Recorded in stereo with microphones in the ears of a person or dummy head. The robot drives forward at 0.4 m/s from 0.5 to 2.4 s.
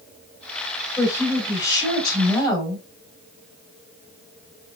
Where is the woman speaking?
15° left (ahead or behind), 3 m; by 2.9 s 20° left (ahead or behind), 2.5 m.